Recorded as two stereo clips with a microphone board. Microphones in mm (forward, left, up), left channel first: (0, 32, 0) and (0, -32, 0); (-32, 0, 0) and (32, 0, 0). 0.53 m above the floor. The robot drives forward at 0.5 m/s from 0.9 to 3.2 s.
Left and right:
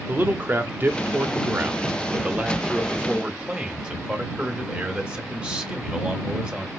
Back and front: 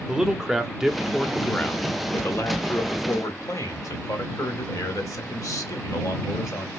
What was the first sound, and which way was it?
A man speaking, 75° right.